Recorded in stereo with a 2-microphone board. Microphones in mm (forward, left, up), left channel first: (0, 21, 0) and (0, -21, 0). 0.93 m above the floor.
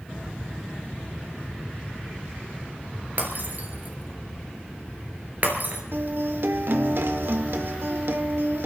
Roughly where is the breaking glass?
Right.